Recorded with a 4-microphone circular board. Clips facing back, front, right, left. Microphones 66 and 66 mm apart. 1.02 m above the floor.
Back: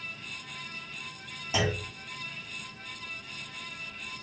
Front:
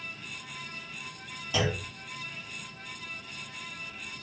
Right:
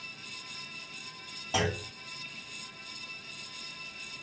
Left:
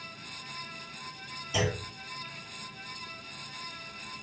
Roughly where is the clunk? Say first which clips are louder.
Even, even; right.